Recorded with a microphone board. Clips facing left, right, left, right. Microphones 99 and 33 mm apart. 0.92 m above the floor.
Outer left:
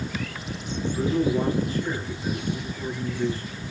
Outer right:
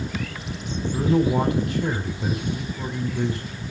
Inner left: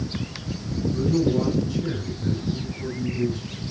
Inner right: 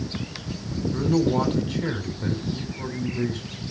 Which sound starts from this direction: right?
A man speaking, at 0.9 s.